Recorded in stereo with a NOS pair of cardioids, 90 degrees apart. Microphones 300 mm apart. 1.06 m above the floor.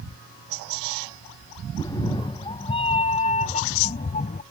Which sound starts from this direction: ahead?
A cat meowing, at 1.8 s.